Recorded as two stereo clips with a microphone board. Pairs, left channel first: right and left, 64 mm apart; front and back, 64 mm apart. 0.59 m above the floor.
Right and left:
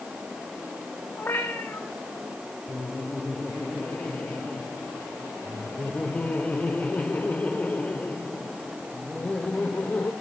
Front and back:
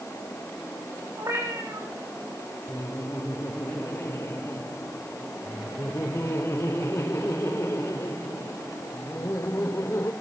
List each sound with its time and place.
1.2 s a cat meowing: 150° right, 8 m
2.7 s laughter: 30° right, 1.8 m